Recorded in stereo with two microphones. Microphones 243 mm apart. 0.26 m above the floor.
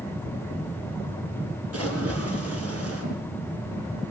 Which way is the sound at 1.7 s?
65° right (ahead or behind).